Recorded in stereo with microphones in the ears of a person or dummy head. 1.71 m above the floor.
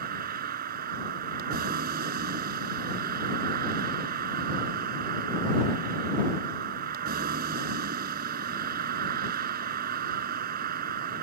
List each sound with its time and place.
0.0 s a vehicle: 55° right (ahead or behind)